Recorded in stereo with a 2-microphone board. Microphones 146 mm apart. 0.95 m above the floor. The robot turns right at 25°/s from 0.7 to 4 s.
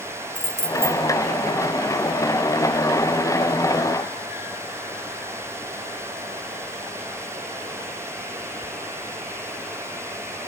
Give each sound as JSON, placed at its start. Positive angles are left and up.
{"t": 0.3, "sound": "keys jangling", "side_deg": 15, "distance_m": 3.0}